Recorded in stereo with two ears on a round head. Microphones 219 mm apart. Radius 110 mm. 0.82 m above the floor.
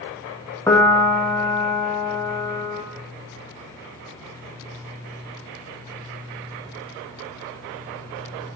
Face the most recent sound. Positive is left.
turn(degrees=10)  # may be behind; listen again after turning